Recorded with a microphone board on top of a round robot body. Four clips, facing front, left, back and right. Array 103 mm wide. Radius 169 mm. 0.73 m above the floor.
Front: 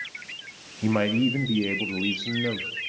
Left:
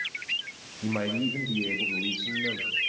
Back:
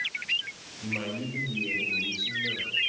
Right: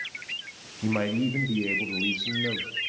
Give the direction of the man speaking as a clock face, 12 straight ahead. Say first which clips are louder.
Right 3 dB, front 11 dB; 12 o'clock.